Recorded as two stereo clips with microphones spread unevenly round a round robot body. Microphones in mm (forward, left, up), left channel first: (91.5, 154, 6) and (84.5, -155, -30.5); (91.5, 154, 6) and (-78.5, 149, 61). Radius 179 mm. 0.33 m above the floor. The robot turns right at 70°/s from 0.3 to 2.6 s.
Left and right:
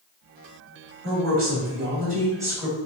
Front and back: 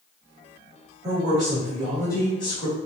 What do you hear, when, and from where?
1.0 s a woman speaking: 120° right, 1.8 m; by 2.8 s 10° right, 1.8 m